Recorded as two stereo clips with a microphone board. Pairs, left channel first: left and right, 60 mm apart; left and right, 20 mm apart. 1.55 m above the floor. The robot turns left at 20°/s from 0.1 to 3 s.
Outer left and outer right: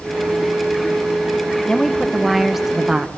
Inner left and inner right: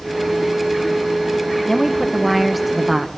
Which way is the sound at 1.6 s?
15° left (ahead or behind).